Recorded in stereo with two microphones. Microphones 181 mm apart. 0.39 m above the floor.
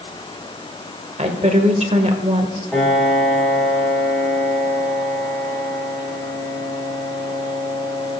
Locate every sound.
1.2 s a woman speaking: 40° right (ahead or behind), 1.7 m
2.7 s a piano: 5° left (ahead or behind), 6 m